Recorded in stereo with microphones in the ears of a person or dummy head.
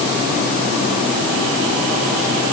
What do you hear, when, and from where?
Only background noise.